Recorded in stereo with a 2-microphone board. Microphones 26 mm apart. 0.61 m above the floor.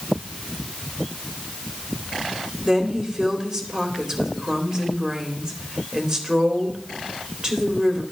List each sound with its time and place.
2.6 s a woman speaking: 30° right (ahead or behind), 2.5 m